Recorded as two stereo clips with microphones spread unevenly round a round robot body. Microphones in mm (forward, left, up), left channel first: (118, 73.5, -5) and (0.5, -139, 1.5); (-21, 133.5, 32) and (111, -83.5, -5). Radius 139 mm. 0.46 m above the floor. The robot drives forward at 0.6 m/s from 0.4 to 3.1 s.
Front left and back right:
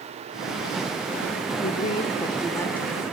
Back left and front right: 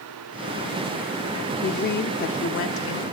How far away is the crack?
I don't hear a crack.